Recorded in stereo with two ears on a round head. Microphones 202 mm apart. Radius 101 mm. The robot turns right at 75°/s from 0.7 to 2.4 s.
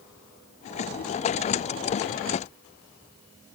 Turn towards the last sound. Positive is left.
No sound to turn to.